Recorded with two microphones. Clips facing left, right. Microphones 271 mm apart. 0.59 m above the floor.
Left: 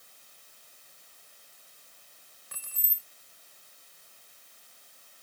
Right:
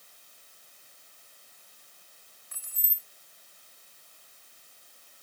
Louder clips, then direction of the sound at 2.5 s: Left 7 dB; 70° left (ahead or behind).